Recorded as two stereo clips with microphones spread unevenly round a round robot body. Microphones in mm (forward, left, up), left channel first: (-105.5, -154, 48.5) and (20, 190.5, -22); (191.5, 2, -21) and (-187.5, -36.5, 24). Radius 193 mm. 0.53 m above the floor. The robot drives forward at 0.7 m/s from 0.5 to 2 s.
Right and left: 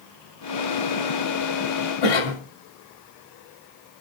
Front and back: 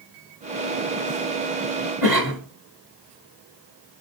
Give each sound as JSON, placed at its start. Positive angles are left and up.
{"t": 2.0, "sound": "a cough", "azimuth_deg": -135, "distance_m": 3.0}